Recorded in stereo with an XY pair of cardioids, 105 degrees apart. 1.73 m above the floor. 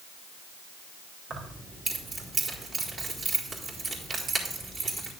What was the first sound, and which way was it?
Keys jangling, 45° right.